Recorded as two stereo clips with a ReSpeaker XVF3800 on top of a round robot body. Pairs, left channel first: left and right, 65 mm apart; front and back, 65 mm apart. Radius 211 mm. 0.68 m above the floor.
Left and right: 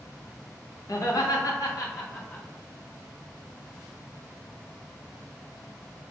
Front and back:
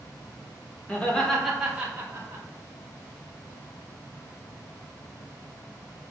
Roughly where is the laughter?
Ahead left.